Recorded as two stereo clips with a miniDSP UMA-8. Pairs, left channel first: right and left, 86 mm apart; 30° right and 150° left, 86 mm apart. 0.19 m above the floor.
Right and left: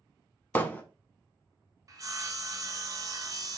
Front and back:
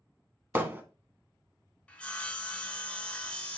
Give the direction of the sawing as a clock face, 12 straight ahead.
11 o'clock.